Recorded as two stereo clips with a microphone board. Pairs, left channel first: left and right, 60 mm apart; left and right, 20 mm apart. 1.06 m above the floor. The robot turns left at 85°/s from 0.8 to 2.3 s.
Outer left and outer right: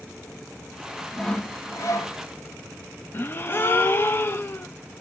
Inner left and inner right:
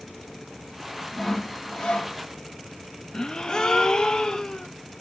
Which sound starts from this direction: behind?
Sawing, at 1.1 s.